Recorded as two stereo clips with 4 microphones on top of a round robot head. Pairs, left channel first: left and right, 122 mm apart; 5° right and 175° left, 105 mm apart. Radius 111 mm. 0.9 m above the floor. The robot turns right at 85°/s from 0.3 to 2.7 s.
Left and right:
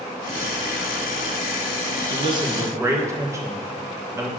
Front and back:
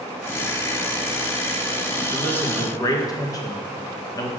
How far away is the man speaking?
About 1.2 m.